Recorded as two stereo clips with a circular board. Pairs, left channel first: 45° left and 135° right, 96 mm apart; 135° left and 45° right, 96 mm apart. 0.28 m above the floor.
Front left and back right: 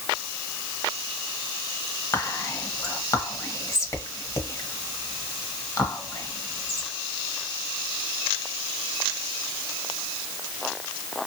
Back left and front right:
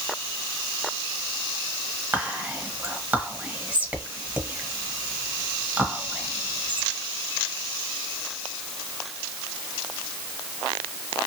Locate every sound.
2.1 s whispering: 15° left, 1.1 m